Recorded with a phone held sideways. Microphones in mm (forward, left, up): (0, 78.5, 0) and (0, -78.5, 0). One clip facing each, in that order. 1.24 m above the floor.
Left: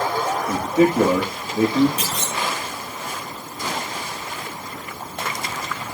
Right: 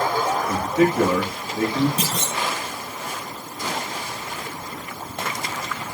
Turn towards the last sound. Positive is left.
turn(degrees=-40)  # may be behind; listen again after turning